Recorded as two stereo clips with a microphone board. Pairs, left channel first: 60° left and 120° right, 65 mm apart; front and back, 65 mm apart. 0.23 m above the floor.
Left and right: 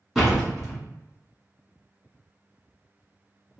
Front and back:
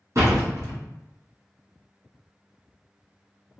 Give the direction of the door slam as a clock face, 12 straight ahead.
7 o'clock.